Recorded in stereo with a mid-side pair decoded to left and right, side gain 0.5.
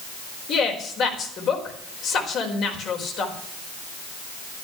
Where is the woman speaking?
65° left, 4.5 m.